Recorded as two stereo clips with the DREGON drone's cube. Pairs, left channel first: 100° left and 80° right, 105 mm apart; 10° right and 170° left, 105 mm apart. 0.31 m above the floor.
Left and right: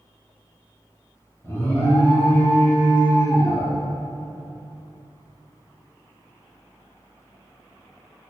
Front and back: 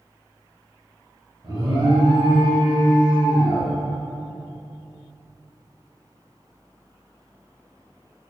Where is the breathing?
I don't hear breathing.